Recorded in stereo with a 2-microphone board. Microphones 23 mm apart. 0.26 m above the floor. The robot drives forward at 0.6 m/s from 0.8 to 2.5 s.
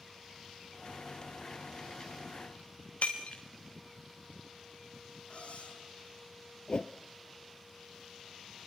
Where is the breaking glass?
90° left, 4 m.